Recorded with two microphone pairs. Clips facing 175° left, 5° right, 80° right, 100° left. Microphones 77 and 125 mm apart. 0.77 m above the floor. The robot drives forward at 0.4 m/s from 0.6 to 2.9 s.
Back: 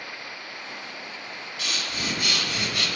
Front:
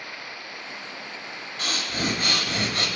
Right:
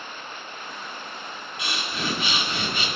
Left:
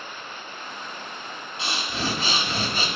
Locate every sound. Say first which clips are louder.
1.6 s breathing: front 4 dB, left 2 dB; 40° left, 2 m; by 2.9 s 50° left, 1.7 m